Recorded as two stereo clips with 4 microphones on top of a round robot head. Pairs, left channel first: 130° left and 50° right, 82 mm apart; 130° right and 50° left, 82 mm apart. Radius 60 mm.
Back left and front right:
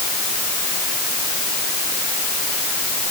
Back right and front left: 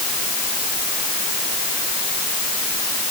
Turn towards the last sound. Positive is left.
No sound to turn to.